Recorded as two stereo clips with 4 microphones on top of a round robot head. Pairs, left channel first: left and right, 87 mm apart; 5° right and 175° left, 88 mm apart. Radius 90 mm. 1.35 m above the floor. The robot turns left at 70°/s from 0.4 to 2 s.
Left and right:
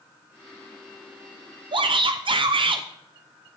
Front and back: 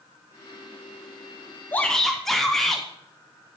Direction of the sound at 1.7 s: 70° right.